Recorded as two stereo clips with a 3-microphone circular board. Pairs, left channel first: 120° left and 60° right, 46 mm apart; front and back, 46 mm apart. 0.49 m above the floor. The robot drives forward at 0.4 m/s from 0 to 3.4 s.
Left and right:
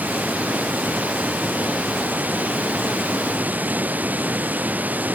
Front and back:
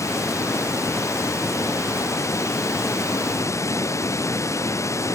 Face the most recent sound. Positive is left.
turn(degrees=0)